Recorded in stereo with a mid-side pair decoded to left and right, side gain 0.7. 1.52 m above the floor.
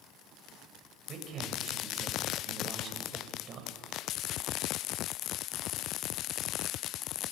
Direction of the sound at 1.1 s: 40° right.